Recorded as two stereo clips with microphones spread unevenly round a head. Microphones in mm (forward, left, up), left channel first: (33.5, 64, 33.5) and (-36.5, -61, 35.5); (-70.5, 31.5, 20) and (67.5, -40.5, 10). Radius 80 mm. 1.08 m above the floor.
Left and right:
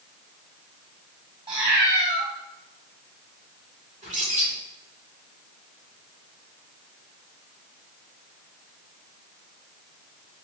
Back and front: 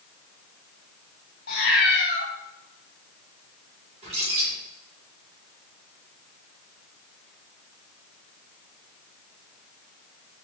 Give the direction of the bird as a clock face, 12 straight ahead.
3 o'clock.